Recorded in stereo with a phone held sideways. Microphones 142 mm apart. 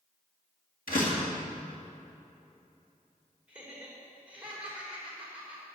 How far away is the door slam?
About 2 m.